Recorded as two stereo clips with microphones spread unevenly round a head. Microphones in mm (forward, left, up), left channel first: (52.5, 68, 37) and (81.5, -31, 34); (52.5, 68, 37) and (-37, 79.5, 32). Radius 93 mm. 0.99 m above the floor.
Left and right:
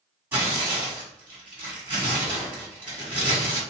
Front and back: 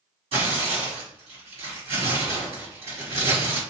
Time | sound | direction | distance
0.3 | tearing paper | 150° right | 1.8 m